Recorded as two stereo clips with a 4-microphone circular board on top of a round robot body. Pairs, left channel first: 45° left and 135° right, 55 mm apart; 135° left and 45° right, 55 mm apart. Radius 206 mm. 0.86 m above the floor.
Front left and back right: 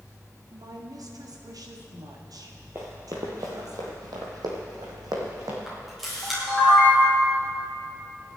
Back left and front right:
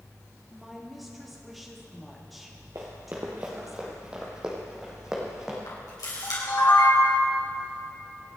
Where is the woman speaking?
135° right, 2 m.